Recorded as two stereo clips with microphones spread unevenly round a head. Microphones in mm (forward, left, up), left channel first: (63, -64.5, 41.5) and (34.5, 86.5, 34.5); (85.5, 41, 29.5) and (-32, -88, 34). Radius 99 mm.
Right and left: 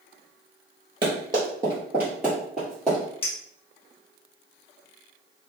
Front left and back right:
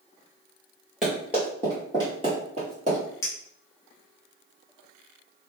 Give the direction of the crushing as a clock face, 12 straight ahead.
I don't hear crushing.